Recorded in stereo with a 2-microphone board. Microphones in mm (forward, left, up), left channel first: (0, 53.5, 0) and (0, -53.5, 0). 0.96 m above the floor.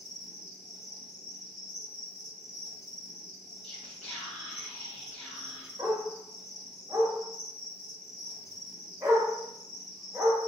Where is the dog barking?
25° right (ahead or behind), 1.0 m.